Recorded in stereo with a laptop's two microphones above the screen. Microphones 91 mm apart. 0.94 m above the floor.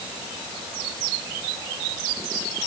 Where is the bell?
No bell in this recording.